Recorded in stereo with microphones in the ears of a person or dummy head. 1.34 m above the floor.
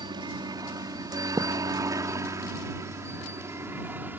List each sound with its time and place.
0.0 s a helicopter: 25° right (ahead or behind); by 4.2 s 10° right (ahead or behind)
1.4 s a thud: 20° right (ahead or behind)